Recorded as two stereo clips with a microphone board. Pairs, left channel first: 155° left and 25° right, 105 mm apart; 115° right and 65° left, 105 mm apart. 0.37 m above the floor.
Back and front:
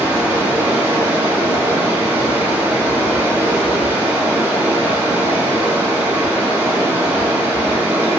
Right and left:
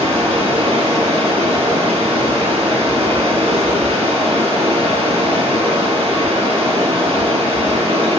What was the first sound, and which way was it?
Running water, 50° left.